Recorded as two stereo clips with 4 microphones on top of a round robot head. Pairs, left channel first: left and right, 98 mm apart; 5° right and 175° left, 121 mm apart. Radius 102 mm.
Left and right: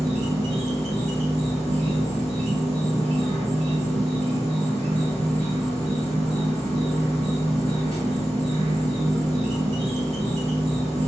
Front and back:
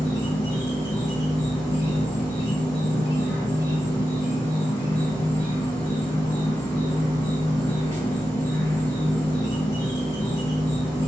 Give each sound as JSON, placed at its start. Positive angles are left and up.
{"t": 0.0, "sound": "an insect", "azimuth_deg": -70, "distance_m": 1.4}